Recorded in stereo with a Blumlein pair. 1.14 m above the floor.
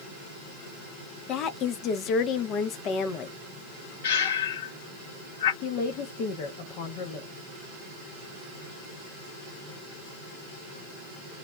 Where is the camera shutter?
No camera shutter in this recording.